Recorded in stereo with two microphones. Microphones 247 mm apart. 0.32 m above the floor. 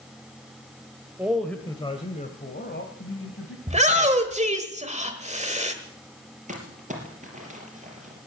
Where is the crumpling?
30° right (ahead or behind), 4 m.